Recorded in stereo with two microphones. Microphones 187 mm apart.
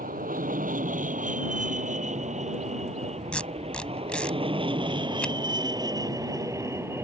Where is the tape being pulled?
5° left (ahead or behind).